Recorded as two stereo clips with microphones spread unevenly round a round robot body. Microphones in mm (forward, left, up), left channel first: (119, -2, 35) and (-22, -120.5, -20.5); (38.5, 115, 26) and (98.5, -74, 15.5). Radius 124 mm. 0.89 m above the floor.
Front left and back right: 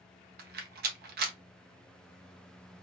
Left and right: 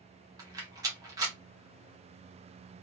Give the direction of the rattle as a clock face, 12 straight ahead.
5 o'clock.